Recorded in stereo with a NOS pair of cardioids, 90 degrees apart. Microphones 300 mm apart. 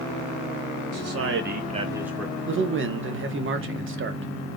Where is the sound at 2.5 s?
45° right, 1.3 m.